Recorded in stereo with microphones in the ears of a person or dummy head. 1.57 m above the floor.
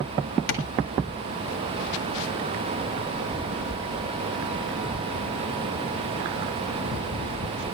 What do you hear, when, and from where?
0.5 s tapping: 70° left (ahead or behind), 2.5 m